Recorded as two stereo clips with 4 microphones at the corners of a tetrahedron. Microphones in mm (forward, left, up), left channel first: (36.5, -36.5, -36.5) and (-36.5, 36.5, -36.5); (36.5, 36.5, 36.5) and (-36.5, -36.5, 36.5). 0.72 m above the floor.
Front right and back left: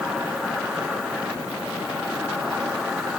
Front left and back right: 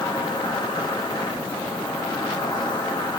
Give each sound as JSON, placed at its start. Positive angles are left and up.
{"t": 0.0, "sound": "an insect", "azimuth_deg": 55, "distance_m": 1.0}